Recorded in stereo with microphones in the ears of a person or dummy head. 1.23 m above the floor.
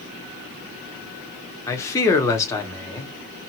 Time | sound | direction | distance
1.7 | a man speaking | 15° left (ahead or behind) | 1.0 m